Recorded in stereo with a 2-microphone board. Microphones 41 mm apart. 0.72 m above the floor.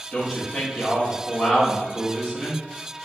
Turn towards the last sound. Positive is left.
turn(degrees=15)  # may be behind; listen again after turning